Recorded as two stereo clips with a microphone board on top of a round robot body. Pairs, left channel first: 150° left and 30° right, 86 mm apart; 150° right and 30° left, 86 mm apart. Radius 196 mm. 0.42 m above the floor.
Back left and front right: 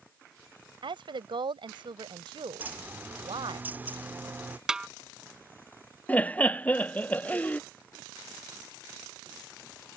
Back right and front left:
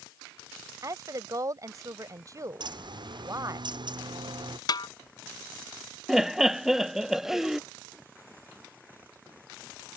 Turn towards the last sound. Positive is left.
turn(degrees=110)